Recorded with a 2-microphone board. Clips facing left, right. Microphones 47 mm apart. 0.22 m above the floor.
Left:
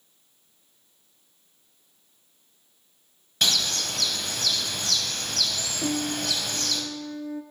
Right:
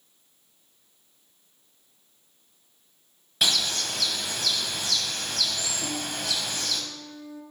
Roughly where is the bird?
Centre.